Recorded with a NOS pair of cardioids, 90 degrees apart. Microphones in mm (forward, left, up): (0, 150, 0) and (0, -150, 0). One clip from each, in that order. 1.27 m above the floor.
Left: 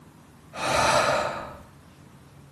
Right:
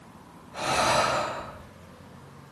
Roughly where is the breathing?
Ahead.